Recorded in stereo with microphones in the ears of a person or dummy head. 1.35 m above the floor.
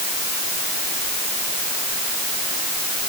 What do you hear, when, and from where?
Only background noise.